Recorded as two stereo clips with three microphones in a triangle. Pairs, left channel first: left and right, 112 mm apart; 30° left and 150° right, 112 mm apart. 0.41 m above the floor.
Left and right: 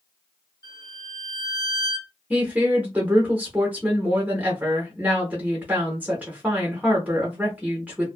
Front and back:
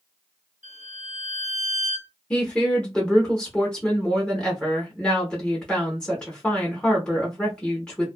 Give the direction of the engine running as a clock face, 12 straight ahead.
I don't hear an engine running.